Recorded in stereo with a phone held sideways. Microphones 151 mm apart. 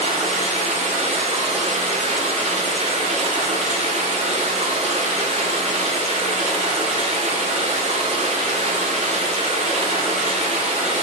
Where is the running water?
45° right (ahead or behind), 1.3 m.